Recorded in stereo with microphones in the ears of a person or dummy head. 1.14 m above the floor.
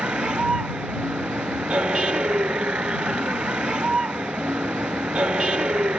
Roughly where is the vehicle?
Centre.